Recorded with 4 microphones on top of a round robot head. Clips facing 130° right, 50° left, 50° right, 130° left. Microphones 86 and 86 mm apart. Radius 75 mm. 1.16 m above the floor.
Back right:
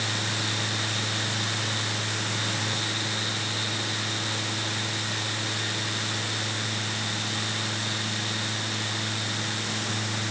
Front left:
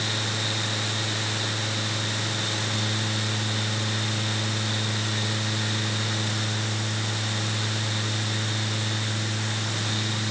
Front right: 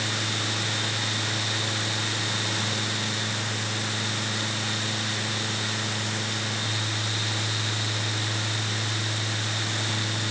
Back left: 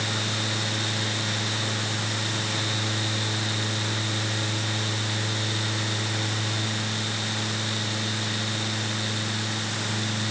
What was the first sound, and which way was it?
Only background noise.